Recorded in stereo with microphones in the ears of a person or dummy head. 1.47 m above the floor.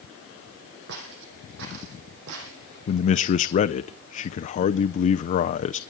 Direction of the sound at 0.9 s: 60° right (ahead or behind).